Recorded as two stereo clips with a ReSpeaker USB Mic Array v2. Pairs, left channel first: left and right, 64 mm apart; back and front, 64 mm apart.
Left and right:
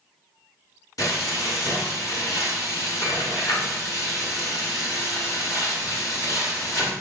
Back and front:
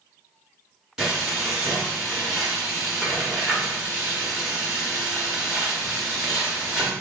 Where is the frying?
80° left, 1.5 m.